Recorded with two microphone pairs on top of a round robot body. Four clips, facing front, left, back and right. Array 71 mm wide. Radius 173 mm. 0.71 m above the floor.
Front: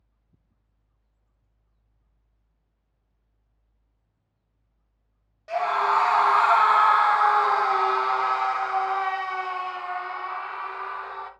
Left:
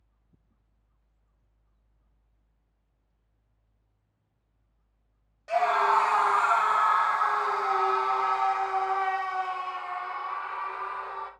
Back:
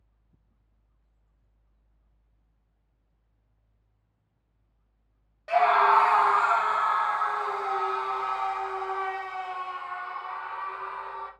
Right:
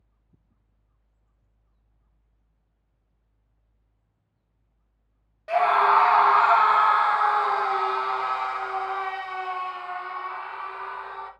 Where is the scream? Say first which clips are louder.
Right 4 dB, back 3 dB; 140° right, 0.9 m; by 11.3 s 5° left, 3 m.